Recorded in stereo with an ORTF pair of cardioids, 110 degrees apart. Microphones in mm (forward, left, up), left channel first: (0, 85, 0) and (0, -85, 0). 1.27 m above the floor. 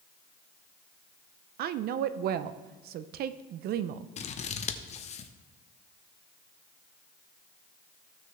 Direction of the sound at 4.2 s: 40° left.